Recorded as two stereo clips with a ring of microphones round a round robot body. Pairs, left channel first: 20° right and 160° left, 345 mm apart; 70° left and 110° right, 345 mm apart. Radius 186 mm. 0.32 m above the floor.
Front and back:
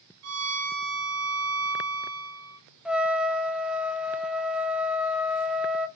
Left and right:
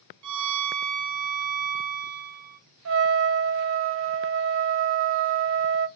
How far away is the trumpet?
About 0.8 m.